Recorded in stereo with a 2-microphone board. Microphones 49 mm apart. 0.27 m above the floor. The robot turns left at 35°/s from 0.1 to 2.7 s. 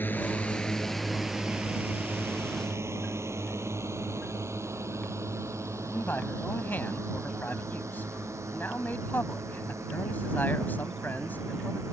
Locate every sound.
0.0 s a drone: 40° left (ahead or behind); by 11.9 s 85° right
5.8 s a man speaking: 40° left (ahead or behind)